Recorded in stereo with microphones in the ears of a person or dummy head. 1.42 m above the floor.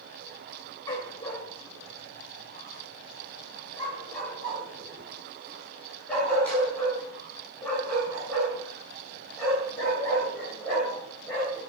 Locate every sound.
0.9 s a dog barking: 15° left (ahead or behind), 2 m; by 11.6 s 5° left (ahead or behind), 9 m